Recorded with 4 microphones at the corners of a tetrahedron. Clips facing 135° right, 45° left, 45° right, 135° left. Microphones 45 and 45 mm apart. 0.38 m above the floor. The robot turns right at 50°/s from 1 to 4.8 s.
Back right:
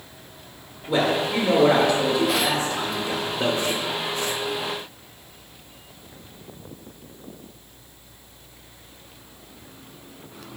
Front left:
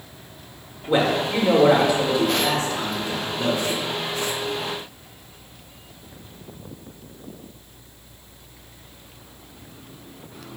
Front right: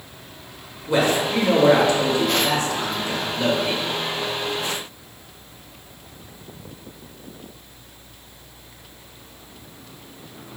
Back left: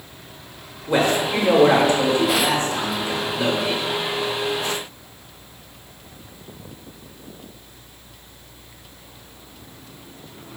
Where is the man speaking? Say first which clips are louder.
Front left 1 dB, even; 75° left, 0.9 m; by 3.8 s 145° right, 0.9 m.